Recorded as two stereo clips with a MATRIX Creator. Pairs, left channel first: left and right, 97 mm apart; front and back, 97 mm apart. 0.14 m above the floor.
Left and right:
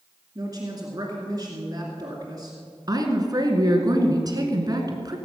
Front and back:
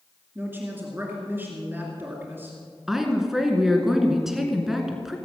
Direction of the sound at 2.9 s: 95° right.